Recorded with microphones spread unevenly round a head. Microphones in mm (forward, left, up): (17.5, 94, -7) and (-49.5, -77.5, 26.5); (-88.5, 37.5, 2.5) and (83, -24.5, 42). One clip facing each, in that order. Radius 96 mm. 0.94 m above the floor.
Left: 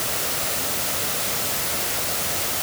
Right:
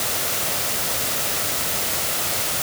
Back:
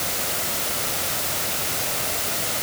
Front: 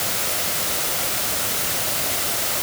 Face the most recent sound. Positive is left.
No sound to turn to.